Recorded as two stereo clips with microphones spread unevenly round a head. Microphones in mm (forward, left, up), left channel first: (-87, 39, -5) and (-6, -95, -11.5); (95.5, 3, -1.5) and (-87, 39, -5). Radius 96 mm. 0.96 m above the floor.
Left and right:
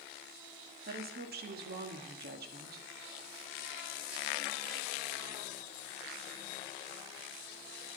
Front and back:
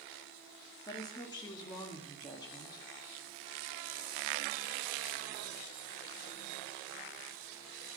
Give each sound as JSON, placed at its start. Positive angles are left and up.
{"t": 0.9, "sound": "a woman speaking", "azimuth_deg": -85, "distance_m": 1.3}